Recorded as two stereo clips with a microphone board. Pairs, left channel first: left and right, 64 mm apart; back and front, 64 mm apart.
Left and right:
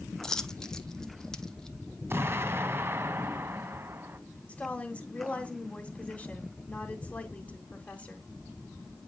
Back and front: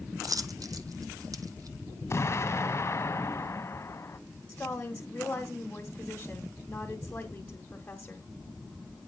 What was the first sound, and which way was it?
A dropped coin, 10° left.